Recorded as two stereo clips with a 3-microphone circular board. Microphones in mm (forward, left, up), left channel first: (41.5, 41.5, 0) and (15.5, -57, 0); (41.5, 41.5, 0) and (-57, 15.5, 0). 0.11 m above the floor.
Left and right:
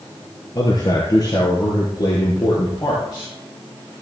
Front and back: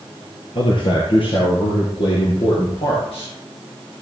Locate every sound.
0.6 s a man speaking: 35° left, 2.5 m; by 3.3 s 30° left, 5 m